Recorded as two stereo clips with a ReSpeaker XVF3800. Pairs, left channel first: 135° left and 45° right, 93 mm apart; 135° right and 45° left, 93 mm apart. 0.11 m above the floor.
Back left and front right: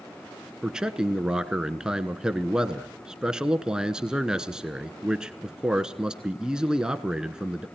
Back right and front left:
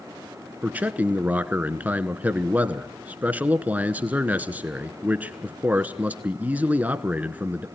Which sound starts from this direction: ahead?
A man speaking, at 0.6 s.